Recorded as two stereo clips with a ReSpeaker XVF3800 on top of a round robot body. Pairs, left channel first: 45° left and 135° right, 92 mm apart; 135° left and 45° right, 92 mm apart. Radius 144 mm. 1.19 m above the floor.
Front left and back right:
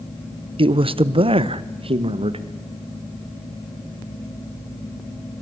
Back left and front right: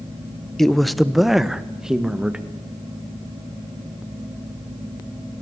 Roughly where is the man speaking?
Behind right.